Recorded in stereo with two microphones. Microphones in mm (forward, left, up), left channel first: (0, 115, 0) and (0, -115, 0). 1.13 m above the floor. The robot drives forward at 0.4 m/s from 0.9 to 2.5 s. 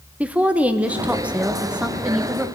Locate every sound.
0.2 s a woman speaking: 5° right (ahead or behind), 0.7 m